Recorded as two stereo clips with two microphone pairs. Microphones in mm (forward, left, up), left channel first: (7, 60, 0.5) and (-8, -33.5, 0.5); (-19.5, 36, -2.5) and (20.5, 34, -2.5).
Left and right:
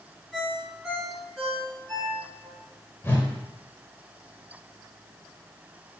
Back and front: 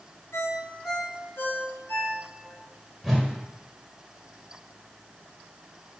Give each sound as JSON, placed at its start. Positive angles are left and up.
{"t": 0.3, "sound": "a ringtone", "azimuth_deg": 165, "distance_m": 3.0}
{"t": 3.0, "sound": "a whoosh", "azimuth_deg": 85, "distance_m": 1.4}